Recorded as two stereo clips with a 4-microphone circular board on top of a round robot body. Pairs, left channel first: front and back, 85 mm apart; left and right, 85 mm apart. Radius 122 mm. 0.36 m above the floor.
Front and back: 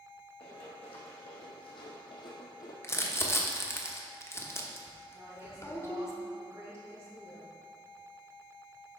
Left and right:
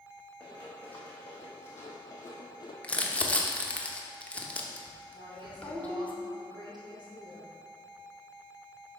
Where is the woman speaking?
120° right, 3 m.